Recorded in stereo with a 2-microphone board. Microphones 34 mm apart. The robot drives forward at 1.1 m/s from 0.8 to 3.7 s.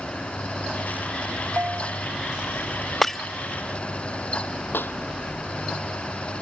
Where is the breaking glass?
10° left (ahead or behind).